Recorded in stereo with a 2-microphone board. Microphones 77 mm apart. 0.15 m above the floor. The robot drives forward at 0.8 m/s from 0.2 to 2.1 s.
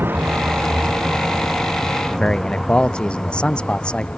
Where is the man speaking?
10° left (ahead or behind).